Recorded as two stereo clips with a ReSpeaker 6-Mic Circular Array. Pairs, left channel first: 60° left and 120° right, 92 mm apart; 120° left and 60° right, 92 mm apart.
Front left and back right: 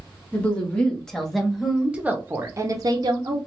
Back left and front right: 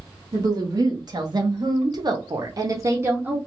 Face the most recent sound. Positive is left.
turn(degrees=-125)